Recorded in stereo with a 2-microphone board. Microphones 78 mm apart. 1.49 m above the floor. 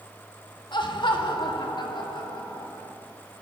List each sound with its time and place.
0.7 s laughter: 75° left (ahead or behind), 2 m; by 2.9 s 80° left, 4.5 m